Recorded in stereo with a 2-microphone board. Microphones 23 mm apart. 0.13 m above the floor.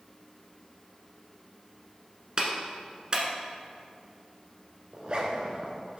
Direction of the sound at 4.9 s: 40° right (ahead or behind).